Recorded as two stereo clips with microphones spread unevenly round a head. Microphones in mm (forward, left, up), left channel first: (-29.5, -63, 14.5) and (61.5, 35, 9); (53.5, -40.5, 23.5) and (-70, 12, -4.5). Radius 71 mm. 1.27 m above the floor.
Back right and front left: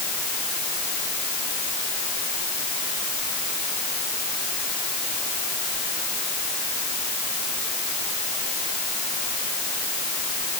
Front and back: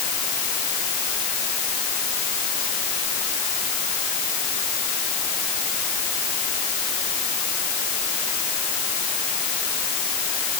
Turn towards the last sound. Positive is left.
No sound to turn to.